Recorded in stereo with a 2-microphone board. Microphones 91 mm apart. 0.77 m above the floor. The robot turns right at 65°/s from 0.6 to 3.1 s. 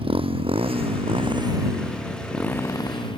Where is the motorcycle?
75° right (ahead or behind); by 3.2 s 60° left (ahead or behind).